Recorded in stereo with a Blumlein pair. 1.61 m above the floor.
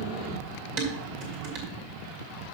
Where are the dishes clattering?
45° right, 2 m.